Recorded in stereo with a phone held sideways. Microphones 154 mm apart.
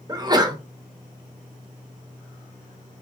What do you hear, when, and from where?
0.1 s a sneeze: 25° right (ahead or behind), 0.6 m